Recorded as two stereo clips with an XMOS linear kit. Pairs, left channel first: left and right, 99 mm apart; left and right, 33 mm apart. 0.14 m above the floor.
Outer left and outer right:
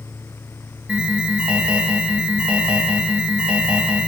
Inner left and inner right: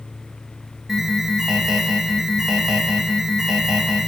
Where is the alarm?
10° right (ahead or behind), 5 m.